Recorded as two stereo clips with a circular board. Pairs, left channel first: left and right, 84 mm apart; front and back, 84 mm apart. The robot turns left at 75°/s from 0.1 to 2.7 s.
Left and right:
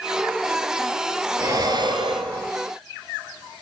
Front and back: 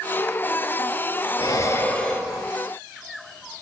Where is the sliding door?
I don't hear a sliding door.